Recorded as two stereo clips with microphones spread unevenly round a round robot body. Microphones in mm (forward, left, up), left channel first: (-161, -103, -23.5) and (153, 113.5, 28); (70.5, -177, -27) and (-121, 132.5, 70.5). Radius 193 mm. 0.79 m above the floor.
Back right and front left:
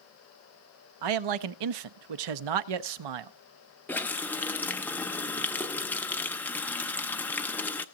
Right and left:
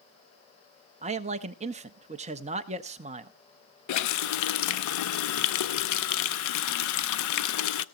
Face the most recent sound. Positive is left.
turn(degrees=-65)